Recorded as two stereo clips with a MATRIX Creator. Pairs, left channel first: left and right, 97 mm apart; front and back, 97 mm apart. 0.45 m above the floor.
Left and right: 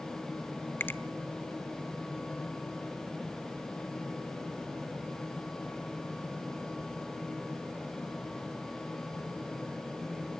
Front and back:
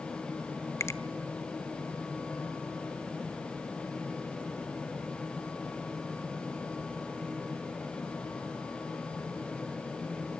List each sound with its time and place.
0.8 s a finger snap: 35° left, 0.8 m